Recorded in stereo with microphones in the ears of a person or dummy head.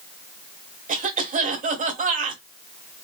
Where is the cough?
40° right (ahead or behind), 1.4 m.